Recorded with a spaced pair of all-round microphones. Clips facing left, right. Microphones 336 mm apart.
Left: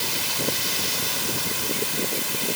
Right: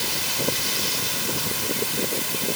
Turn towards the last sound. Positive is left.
No sound to turn to.